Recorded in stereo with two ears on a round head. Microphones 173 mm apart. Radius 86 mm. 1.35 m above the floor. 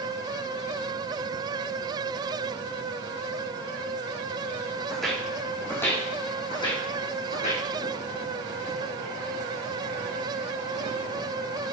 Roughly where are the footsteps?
Centre.